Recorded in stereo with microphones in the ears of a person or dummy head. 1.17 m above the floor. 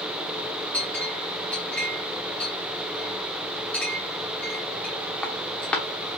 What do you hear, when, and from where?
0.7 s a clink: 10° left (ahead or behind), 0.9 m